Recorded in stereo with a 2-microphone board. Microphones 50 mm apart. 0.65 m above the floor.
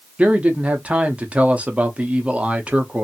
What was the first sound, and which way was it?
A man speaking, 25° right (ahead or behind).